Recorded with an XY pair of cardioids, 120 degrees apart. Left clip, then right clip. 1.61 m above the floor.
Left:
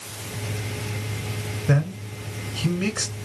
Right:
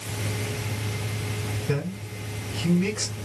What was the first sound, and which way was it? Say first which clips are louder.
A man speaking: left 6 dB; 65° left.